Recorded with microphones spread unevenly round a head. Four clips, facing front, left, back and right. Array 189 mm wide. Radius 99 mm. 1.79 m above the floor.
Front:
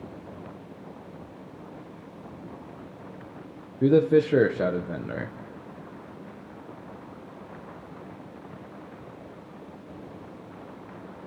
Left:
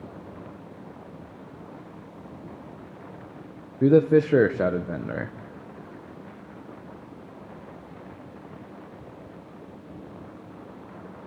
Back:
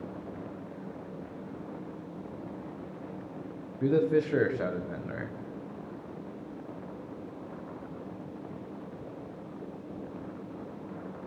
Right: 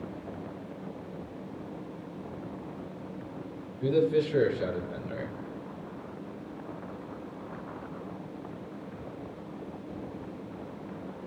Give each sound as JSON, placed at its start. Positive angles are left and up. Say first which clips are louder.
{"t": 3.8, "sound": "a man speaking", "louder": "left 8 dB, front 6 dB", "azimuth_deg": 60, "distance_m": 1.1}